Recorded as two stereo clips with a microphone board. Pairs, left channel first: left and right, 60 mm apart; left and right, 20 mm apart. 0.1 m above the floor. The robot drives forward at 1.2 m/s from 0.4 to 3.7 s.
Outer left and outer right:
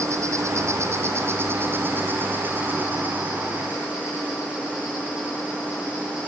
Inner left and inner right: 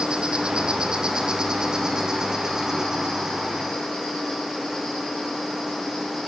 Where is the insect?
55° right (ahead or behind), 3 m; by 6.3 s 25° right (ahead or behind), 6 m.